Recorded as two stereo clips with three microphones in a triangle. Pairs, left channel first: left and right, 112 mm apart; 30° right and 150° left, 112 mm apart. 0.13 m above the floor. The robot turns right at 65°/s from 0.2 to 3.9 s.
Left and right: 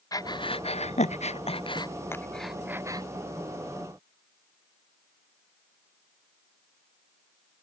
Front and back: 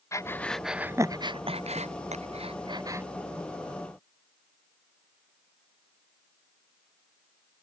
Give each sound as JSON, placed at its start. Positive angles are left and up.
{"t": 0.1, "sound": "breathing", "azimuth_deg": 35}